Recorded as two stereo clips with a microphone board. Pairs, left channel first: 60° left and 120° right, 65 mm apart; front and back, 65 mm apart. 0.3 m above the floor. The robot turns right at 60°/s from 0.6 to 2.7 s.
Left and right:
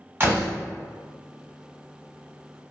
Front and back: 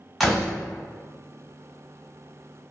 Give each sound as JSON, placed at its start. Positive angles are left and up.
{"t": 0.2, "sound": "a door slam", "azimuth_deg": -90, "distance_m": 1.2}